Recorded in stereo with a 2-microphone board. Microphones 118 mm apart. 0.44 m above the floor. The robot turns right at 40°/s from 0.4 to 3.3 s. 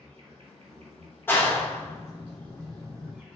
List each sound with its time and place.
0.0 s an insect: 125° right, 1.0 m; by 3.4 s 10° right, 1.0 m
1.3 s a clap: 15° left (ahead or behind), 0.6 m